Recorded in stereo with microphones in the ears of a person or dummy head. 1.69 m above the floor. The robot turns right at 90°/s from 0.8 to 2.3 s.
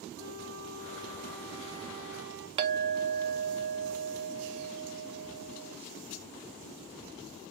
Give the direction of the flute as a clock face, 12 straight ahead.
10 o'clock.